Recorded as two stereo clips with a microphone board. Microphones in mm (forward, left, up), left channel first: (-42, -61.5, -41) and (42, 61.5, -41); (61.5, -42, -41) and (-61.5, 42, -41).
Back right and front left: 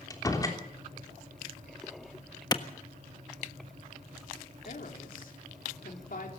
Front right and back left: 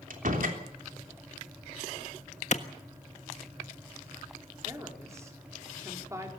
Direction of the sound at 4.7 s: 145° right.